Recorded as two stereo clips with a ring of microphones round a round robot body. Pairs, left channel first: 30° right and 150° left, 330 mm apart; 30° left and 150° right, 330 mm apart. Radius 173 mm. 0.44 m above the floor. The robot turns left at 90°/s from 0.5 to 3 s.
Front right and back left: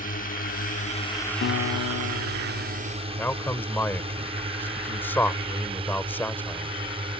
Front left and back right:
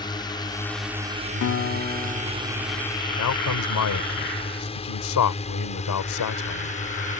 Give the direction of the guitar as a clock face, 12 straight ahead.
12 o'clock.